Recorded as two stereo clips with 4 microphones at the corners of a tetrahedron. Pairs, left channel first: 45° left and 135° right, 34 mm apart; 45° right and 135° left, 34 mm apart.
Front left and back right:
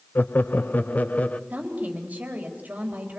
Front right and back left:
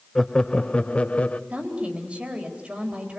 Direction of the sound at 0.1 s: 35° left.